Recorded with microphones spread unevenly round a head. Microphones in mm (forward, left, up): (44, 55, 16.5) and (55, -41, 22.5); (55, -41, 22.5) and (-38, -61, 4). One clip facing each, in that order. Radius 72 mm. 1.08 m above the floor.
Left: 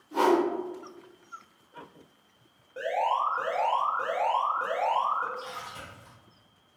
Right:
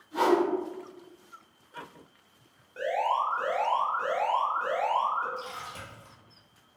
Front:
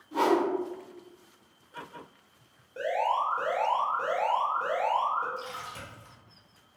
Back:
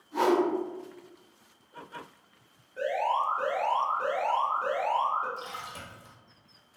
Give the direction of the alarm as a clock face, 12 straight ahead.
11 o'clock.